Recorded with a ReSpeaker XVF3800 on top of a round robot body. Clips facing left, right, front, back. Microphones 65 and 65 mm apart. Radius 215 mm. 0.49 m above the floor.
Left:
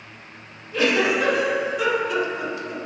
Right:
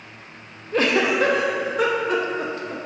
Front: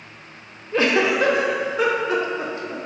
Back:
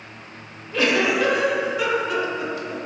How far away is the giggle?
About 0.5 m.